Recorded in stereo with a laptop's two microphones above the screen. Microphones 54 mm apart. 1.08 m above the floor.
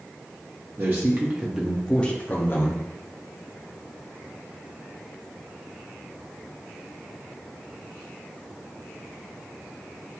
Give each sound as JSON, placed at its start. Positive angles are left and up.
{"t": 0.8, "sound": "a man speaking", "side_deg": -45, "distance_m": 0.8}